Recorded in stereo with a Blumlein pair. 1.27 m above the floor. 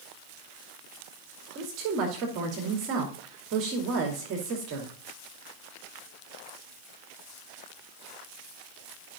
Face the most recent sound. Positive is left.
turn(degrees=-40)